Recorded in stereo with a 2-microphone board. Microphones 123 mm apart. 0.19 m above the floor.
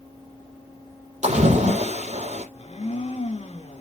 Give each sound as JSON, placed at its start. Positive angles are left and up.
{"t": 1.2, "sound": "a splash", "side_deg": -75, "distance_m": 5.0}
{"t": 2.5, "sound": "a blender", "side_deg": 65, "distance_m": 1.7}